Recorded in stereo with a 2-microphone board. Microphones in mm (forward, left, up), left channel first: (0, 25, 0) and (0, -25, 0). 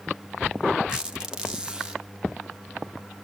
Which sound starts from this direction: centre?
A squeak, at 0.9 s.